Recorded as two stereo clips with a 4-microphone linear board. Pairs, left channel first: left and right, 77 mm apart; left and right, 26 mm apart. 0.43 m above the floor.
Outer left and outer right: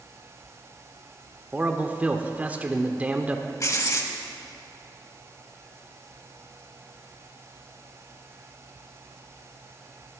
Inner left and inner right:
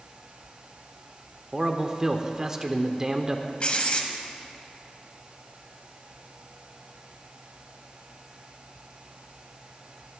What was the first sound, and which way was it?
A man speaking, 20° right (ahead or behind).